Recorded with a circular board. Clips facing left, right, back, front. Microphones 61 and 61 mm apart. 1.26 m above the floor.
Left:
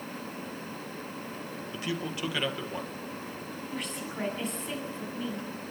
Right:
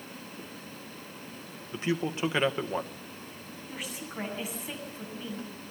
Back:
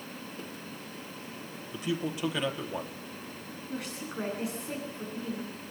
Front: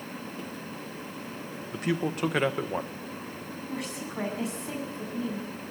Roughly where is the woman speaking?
Ahead.